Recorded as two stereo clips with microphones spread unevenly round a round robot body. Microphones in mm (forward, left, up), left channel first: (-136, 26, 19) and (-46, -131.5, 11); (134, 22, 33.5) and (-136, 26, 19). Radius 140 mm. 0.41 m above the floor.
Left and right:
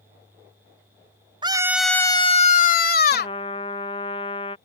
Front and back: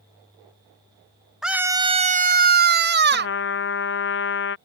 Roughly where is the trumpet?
Ahead left.